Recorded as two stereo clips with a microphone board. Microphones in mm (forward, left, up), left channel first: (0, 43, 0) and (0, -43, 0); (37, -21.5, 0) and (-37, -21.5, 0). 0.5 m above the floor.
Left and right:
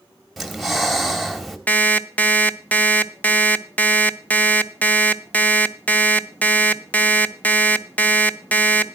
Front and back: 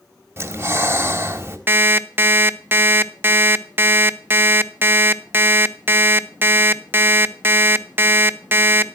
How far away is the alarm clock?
About 0.6 m.